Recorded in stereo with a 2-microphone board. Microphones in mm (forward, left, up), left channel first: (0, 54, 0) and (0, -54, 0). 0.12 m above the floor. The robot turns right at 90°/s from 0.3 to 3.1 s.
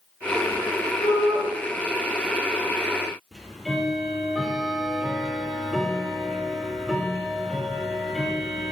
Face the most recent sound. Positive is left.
turn(degrees=0)  # may be behind; listen again after turning